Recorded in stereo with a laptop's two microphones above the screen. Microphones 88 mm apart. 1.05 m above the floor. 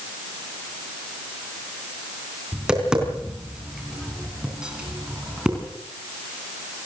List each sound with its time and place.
2.5 s tapping: 10° right (ahead or behind), 4 m